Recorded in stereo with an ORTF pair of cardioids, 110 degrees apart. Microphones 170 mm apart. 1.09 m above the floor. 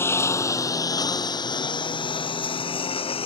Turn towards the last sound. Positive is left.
turn(degrees=35)